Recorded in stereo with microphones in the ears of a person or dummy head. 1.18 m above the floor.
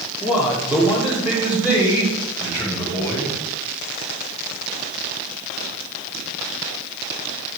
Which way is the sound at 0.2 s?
5° right (ahead or behind).